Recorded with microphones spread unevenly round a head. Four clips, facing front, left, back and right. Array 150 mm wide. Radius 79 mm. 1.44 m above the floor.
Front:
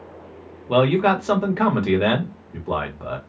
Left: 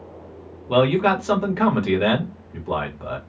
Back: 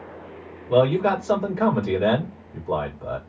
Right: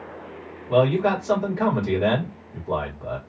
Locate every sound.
0.7 s a man speaking: 25° left, 1.2 m